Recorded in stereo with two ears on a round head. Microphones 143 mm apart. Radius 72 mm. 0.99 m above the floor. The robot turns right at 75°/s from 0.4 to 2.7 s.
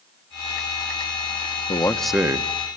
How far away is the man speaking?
About 1.1 m.